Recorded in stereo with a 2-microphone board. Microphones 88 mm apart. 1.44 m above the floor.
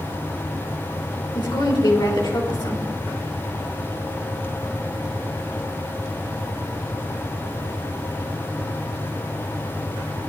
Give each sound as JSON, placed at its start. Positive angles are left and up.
{"t": 1.4, "sound": "a woman speaking", "side_deg": 60, "distance_m": 3.0}